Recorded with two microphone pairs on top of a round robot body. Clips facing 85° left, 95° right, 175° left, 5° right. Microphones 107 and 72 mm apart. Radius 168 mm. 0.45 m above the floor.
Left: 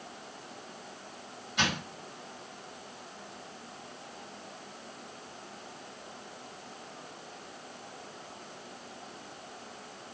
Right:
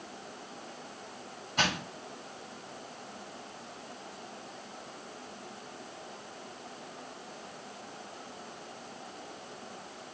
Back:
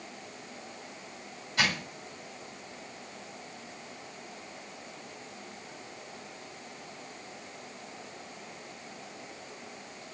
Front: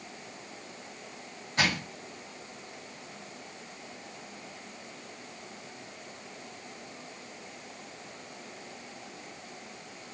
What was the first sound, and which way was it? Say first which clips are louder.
Crushing: even, front 1 dB; 70° right.